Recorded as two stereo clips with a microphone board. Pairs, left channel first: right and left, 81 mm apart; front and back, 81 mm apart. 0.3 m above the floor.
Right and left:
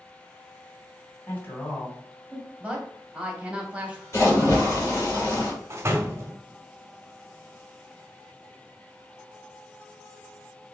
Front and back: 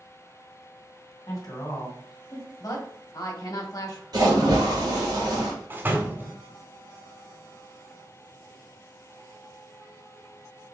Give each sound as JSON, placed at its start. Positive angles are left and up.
{"t": 1.3, "sound": "a woman speaking", "azimuth_deg": -30, "distance_m": 1.8}
{"t": 2.6, "sound": "a woman speaking", "azimuth_deg": 20, "distance_m": 1.3}
{"t": 4.1, "sound": "a splash", "azimuth_deg": -145, "distance_m": 2.5}
{"t": 5.7, "sound": "a door slam", "azimuth_deg": 130, "distance_m": 0.8}